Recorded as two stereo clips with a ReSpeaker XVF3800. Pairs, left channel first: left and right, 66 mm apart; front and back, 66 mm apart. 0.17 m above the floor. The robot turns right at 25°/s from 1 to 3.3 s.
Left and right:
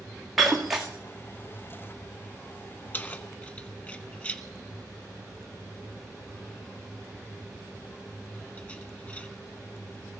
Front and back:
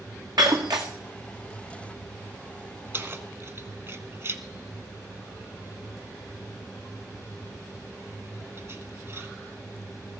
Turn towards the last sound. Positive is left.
turn(degrees=150)